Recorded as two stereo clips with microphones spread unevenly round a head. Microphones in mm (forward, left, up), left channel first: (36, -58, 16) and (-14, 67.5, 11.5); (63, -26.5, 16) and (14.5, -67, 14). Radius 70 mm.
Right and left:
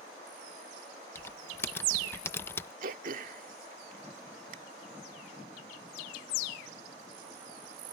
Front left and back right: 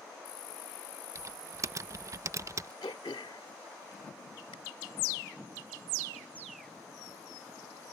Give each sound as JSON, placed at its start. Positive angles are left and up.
{"t": 1.1, "sound": "typing on a keyboard", "azimuth_deg": -140}
{"t": 2.8, "sound": "throat clearing", "azimuth_deg": 85}